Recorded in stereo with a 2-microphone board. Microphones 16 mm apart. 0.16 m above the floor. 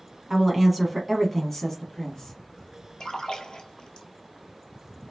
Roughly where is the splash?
Left.